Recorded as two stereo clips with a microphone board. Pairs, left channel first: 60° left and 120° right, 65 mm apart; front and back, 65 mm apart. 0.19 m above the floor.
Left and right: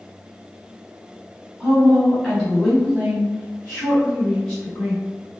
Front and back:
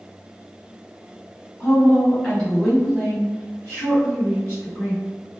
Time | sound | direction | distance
1.6 | a woman speaking | 50° right | 1.5 m